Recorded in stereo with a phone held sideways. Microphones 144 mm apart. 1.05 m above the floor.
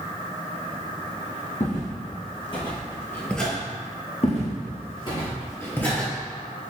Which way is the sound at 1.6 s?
55° left (ahead or behind).